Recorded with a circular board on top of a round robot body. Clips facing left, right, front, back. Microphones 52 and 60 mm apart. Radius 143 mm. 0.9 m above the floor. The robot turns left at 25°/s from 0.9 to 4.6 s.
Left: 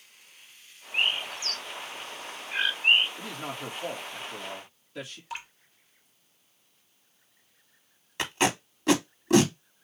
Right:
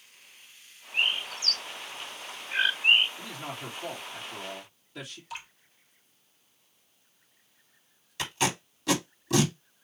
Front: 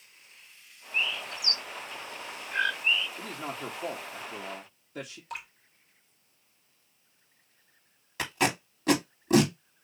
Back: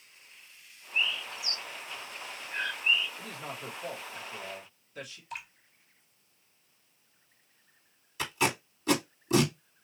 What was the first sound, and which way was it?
A bird, 40° left.